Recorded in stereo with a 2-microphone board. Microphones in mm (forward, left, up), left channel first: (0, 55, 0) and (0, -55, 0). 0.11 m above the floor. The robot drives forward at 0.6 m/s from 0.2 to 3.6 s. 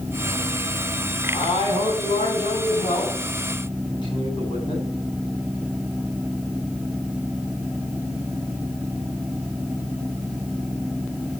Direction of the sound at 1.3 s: 50° left (ahead or behind).